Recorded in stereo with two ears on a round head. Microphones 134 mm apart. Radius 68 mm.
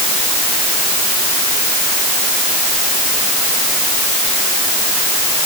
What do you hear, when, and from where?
Only background noise.